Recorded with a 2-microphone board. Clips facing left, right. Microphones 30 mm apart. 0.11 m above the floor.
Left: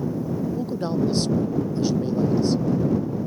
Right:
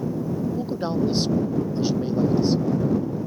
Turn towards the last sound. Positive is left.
turn(degrees=-10)  # may be behind; listen again after turning